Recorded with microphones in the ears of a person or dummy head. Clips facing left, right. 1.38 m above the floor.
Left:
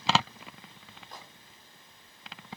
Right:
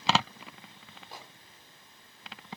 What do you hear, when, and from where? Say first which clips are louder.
1.1 s a microwave: right 1 dB; 10° right (ahead or behind), 3 m